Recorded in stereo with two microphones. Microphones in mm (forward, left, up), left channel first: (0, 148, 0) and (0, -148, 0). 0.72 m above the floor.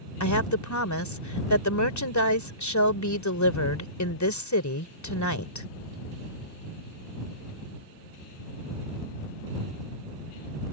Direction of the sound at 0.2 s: 70° left (ahead or behind).